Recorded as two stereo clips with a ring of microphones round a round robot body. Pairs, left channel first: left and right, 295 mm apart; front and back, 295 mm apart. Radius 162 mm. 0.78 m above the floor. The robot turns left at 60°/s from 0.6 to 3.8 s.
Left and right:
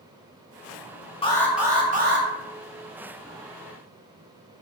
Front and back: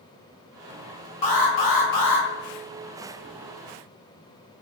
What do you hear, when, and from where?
1.2 s an alarm: 20° left, 0.9 m; by 2.3 s 45° right, 0.9 m